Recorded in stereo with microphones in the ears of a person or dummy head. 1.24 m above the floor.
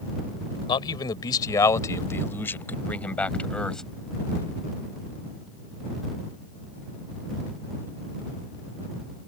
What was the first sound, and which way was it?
A man speaking, 25° left (ahead or behind).